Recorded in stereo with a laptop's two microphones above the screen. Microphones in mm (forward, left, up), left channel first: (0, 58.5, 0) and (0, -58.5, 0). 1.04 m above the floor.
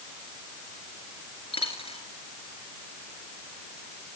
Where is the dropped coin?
55° left (ahead or behind), 5.5 m.